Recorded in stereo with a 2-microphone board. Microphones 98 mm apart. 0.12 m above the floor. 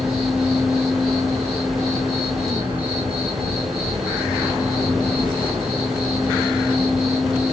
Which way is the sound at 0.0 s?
70° right (ahead or behind).